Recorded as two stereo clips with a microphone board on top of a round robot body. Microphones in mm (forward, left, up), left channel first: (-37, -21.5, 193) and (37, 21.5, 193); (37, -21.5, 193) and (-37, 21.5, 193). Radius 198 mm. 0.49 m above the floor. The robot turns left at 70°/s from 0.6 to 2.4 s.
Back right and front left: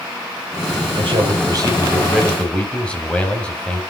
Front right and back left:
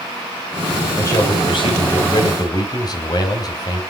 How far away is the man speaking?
About 4.5 m.